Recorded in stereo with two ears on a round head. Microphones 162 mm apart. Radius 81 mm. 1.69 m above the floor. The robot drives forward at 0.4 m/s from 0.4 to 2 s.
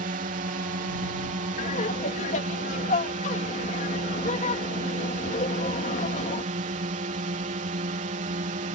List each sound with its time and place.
0.0 s a drone: 50° right (ahead or behind); by 8.8 s 45° right (ahead or behind)
1.6 s laughter: 45° left (ahead or behind)